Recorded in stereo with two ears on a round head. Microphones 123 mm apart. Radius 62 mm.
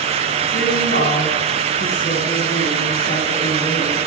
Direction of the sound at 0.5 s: 85° left.